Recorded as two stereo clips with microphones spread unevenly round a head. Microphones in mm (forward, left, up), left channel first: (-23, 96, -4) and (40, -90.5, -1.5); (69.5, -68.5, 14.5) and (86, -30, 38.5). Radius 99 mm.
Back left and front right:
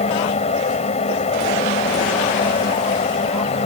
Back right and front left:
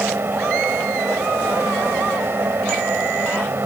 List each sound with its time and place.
0.0 s a fan: 50° left